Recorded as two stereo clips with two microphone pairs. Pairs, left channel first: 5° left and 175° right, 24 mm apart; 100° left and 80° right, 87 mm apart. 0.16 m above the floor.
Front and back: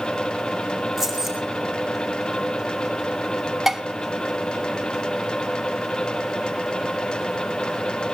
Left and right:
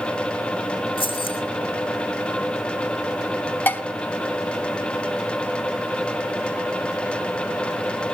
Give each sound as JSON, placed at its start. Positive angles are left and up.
{"t": 1.0, "sound": "keys jangling", "azimuth_deg": 105, "distance_m": 6.0}
{"t": 3.7, "sound": "dishes clattering", "azimuth_deg": 125, "distance_m": 0.8}